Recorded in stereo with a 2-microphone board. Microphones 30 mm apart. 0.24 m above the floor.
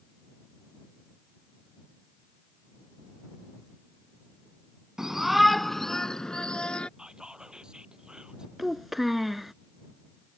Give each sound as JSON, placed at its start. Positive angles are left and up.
{"t": 5.0, "sound": "a shout", "side_deg": -15}
{"t": 7.0, "sound": "whispering", "side_deg": -25}
{"t": 8.6, "sound": "a child speaking", "side_deg": -5}